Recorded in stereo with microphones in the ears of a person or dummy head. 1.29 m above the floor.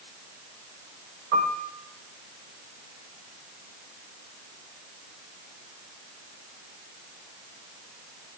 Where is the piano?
65° right (ahead or behind), 5.5 m.